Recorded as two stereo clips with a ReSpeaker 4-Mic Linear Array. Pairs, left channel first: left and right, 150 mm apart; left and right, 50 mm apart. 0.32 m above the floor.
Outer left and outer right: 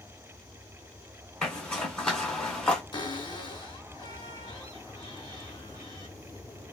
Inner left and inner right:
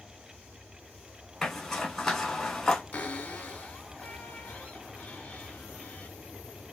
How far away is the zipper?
About 1.7 m.